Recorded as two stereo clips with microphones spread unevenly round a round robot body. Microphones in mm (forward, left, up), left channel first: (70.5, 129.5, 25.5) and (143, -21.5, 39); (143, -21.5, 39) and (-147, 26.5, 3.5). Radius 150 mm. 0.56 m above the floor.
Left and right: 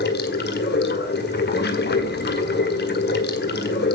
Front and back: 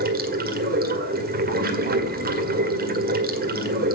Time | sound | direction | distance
0.0 | running water | 115° left | 1.7 m